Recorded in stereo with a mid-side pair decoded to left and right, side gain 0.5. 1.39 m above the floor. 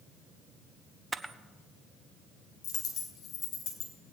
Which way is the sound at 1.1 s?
15° right.